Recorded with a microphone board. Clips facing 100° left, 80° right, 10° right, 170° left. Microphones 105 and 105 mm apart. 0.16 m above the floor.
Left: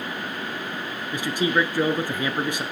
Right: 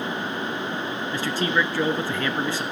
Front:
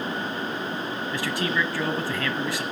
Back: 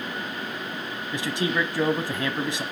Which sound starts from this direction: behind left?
A man speaking, at 1.1 s.